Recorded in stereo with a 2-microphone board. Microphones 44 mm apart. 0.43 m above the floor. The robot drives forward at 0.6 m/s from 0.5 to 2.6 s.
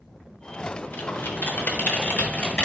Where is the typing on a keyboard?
50° left (ahead or behind), 0.8 m; by 2.7 s 35° left (ahead or behind), 1.1 m.